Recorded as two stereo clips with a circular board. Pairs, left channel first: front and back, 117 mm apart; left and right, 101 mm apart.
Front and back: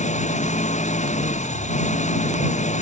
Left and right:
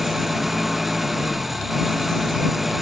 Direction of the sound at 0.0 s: Straight ahead.